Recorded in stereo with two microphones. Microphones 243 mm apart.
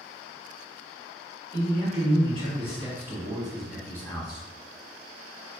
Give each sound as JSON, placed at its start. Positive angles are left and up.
{"t": 1.5, "sound": "a man speaking", "side_deg": -35, "distance_m": 1.7}